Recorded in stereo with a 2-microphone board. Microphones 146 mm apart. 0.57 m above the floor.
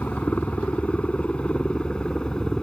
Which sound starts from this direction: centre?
A helicopter, at 0.0 s.